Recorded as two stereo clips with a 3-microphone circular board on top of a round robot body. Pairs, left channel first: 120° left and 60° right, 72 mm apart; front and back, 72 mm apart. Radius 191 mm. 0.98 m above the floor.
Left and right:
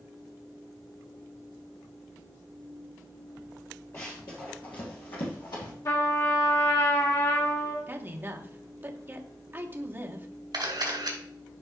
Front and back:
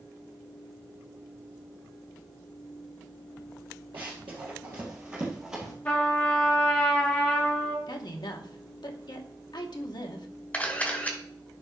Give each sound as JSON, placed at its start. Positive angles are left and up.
{"t": 3.9, "sound": "running footsteps", "azimuth_deg": 175, "distance_m": 1.7}
{"t": 5.8, "sound": "a trumpet", "azimuth_deg": 70, "distance_m": 1.0}
{"t": 7.9, "sound": "a woman speaking", "azimuth_deg": 0, "distance_m": 1.2}
{"t": 10.5, "sound": "a camera shutter", "azimuth_deg": -70, "distance_m": 2.5}